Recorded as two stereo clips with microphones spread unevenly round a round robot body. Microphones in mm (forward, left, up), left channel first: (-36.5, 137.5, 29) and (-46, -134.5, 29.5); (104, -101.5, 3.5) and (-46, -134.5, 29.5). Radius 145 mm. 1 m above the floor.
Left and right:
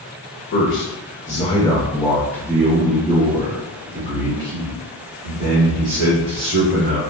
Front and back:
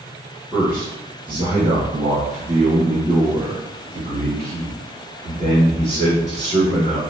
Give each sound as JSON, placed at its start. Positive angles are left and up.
{"t": 0.5, "sound": "a man speaking", "azimuth_deg": 105, "distance_m": 1.1}